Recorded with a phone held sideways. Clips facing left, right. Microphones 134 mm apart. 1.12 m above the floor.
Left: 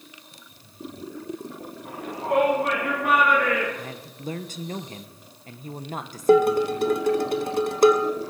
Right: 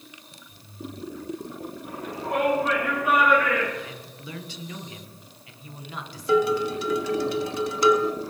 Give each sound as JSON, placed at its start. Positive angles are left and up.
{"t": 1.9, "sound": "a shout", "side_deg": 80, "distance_m": 7.0}
{"t": 3.8, "sound": "a man speaking", "side_deg": 45, "distance_m": 0.9}
{"t": 6.3, "sound": "dishes clattering", "side_deg": 50, "distance_m": 0.7}